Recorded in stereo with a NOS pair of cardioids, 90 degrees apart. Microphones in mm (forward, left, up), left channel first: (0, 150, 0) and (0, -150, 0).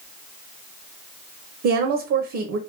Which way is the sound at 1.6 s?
55° right.